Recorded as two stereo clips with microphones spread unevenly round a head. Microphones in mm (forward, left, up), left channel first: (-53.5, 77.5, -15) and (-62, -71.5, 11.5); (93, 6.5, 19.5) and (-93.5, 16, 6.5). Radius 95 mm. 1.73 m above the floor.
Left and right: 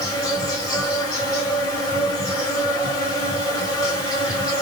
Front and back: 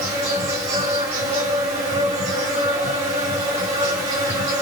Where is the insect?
150° left, 1.7 m.